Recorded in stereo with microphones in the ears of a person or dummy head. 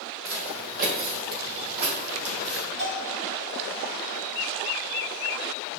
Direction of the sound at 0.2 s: 35° right (ahead or behind).